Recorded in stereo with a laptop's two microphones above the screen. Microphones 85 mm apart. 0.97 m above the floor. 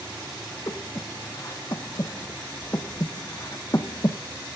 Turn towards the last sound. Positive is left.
turn(degrees=40)  # may be behind; listen again after turning